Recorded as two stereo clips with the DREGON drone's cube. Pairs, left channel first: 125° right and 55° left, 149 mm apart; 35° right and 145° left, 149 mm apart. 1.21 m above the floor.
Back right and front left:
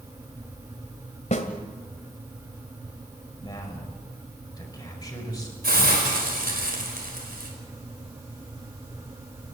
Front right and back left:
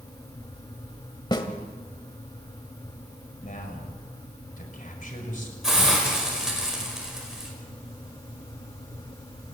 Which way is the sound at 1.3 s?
90° right.